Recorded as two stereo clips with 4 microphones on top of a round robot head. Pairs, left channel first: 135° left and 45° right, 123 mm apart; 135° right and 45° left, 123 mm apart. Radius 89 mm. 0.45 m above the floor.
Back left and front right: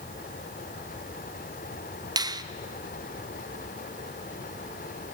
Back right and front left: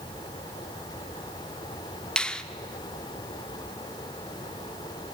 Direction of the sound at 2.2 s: 60° right.